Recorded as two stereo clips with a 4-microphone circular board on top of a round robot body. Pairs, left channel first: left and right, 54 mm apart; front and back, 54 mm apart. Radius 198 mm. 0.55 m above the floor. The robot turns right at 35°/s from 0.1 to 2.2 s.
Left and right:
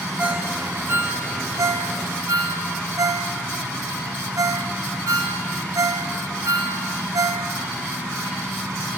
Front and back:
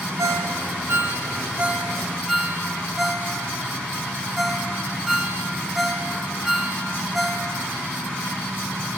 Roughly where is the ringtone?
Behind.